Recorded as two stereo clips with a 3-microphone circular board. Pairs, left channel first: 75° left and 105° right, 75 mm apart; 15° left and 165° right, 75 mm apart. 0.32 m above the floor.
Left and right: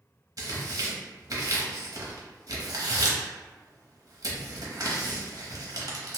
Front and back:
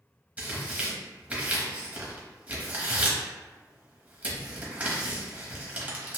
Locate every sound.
0.4 s tearing paper: 100° right, 0.8 m